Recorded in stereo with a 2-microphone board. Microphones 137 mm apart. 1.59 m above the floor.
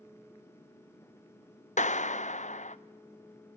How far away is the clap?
About 0.6 m.